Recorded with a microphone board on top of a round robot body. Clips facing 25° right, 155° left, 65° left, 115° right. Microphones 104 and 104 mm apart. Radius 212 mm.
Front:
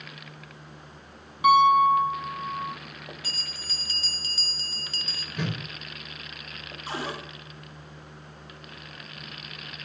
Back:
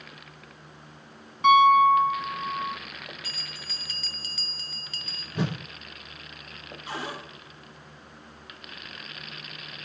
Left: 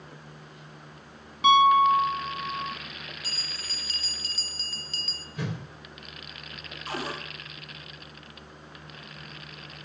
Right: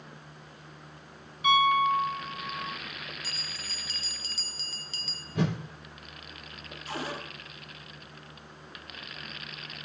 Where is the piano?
60° left, 1.3 m.